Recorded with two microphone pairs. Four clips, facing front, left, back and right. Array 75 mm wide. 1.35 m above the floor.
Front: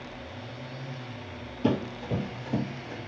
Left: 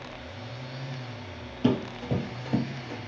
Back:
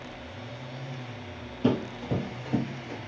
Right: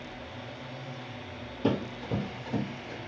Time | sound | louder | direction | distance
1.6 | running footsteps | left 3 dB, back 1 dB | 115° left | 1.9 m